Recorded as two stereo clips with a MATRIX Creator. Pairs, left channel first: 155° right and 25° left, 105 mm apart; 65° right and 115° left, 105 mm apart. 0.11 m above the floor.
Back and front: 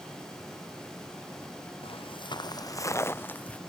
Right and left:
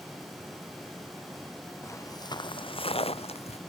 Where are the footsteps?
130° right; by 3.6 s 80° right.